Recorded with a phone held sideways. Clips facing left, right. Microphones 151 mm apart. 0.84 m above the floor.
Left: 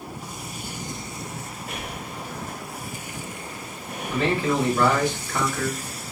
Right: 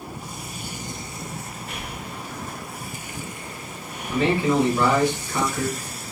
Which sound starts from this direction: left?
Breathing, at 1.7 s.